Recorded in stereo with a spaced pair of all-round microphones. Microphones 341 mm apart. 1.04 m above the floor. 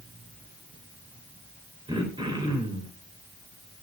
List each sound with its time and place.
1.9 s throat clearing: 15° right (ahead or behind), 2.5 m